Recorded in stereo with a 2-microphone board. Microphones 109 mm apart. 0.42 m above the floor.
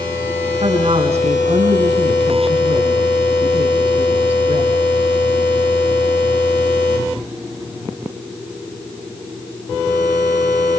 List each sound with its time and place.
0.6 s a woman speaking: 70° right (ahead or behind), 4.5 m